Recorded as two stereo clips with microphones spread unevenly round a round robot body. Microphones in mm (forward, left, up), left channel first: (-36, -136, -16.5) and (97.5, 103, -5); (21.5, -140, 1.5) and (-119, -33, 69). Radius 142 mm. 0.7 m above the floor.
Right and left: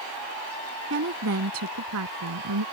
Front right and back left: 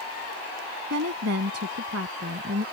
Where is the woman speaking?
115° left; by 2.6 s 95° left.